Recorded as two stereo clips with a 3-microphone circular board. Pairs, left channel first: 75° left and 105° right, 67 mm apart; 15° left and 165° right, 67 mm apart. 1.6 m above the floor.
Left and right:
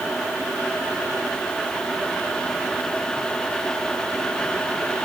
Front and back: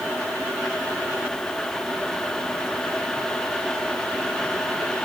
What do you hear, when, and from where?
Only background noise.